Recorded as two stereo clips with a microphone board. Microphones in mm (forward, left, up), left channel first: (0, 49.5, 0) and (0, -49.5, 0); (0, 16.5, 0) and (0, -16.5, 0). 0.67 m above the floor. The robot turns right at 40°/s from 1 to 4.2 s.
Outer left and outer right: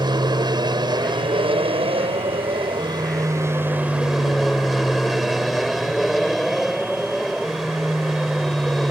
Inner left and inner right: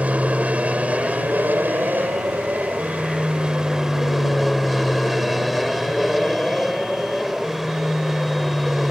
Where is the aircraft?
130° right; by 8.9 s straight ahead.